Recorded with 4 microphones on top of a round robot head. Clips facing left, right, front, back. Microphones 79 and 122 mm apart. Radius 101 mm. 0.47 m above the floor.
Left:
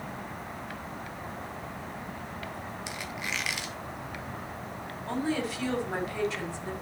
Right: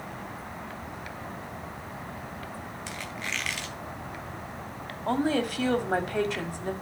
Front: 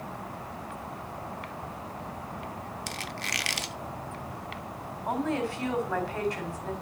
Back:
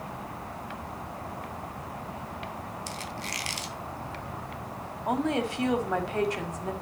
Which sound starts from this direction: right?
A woman speaking, at 5.1 s.